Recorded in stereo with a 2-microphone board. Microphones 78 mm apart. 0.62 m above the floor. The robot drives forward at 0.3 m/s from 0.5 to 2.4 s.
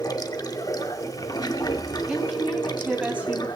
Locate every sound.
0.0 s running water: 55° left (ahead or behind), 1.1 m; by 3.6 s 60° left (ahead or behind), 1.1 m
2.1 s a woman speaking: 15° right (ahead or behind), 4.5 m